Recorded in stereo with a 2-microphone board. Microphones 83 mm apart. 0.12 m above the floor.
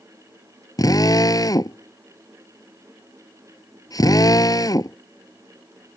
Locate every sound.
0.8 s a drill: 50° left (ahead or behind)